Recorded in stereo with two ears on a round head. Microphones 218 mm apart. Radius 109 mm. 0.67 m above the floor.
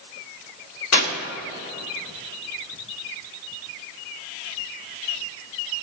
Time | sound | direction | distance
0.9 | tearing paper | 75° left (ahead or behind) | 2.5 m